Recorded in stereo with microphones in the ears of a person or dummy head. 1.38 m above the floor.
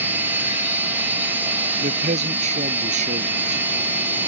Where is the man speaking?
45° right (ahead or behind).